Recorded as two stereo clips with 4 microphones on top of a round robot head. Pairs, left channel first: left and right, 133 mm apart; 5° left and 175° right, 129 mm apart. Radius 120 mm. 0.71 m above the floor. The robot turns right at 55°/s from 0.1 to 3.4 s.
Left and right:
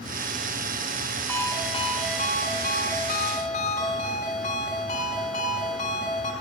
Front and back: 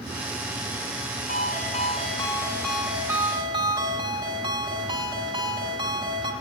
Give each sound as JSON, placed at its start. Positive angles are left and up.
{"t": 1.3, "sound": "a ringtone", "azimuth_deg": 15, "distance_m": 5.5}